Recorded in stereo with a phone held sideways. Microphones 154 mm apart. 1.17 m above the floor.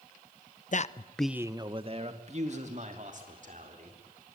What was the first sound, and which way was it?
A man speaking, 55° left (ahead or behind).